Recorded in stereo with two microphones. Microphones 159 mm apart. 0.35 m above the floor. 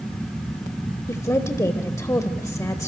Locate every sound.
1.1 s a woman speaking: 20° left (ahead or behind), 1.1 m